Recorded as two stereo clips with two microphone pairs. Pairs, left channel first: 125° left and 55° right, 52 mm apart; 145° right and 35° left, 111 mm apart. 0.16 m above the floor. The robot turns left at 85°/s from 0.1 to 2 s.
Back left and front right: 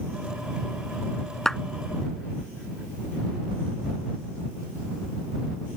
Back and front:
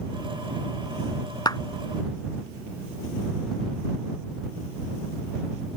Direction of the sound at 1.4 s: 160° right.